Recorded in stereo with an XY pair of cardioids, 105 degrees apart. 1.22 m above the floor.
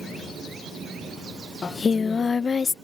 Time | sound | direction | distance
1.6 | singing | 35° left | ?